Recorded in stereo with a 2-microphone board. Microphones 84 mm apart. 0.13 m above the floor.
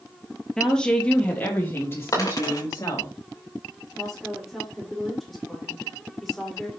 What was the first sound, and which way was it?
A woman speaking, 5° left (ahead or behind).